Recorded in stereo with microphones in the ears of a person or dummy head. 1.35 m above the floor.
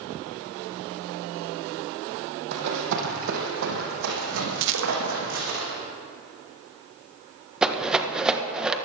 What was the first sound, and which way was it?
Running footsteps, 65° right (ahead or behind).